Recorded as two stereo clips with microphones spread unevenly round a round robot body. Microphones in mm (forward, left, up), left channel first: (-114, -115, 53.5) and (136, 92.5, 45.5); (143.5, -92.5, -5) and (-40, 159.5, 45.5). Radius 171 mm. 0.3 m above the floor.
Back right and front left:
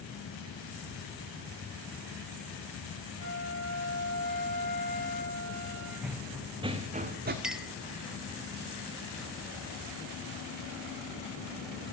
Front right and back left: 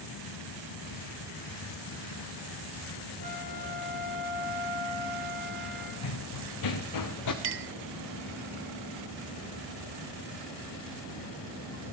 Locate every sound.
3.2 s a flute: 100° right, 8 m
6.0 s running footsteps: 50° right, 1.6 m; by 7.3 s 20° right, 1.6 m
7.4 s a clink: 125° left, 0.8 m